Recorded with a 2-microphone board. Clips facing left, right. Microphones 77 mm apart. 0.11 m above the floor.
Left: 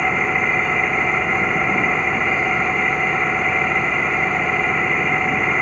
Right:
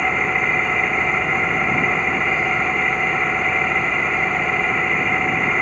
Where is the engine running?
5° left (ahead or behind).